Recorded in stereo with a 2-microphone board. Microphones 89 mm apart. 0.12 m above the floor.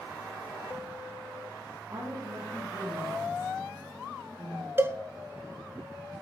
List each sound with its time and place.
1.9 s a woman speaking: 35° right (ahead or behind), 5.5 m; by 4.7 s 15° right (ahead or behind), 5.5 m
4.8 s a cowbell: 30° right (ahead or behind), 0.5 m